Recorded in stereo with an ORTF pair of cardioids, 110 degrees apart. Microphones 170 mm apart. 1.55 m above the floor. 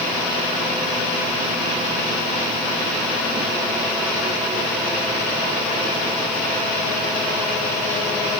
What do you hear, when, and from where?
Only background noise.